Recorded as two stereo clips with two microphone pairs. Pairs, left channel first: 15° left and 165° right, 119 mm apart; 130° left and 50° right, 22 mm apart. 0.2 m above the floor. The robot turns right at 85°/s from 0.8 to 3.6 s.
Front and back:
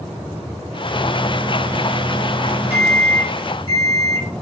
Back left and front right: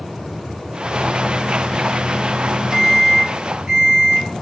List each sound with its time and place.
0.9 s a microwave: 110° left, 2.5 m; by 4.3 s 20° right, 2.5 m